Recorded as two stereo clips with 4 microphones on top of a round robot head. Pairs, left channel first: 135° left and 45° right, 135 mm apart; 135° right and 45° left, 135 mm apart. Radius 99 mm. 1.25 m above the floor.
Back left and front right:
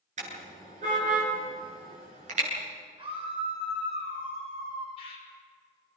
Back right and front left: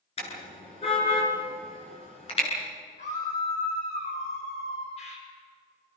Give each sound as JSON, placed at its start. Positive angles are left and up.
{"t": 0.2, "sound": "a car horn", "azimuth_deg": -85, "distance_m": 10.0}
{"t": 3.0, "sound": "a scream", "azimuth_deg": -100, "distance_m": 7.0}
{"t": 5.0, "sound": "a bird", "azimuth_deg": -175, "distance_m": 6.0}